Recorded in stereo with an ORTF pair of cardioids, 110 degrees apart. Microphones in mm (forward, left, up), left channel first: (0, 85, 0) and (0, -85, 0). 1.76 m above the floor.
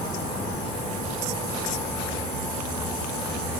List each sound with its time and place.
Only background noise.